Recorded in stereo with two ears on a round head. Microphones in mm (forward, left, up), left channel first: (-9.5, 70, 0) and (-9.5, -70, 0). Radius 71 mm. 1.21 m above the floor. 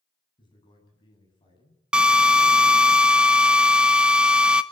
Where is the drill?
5° right (ahead or behind), 0.6 m.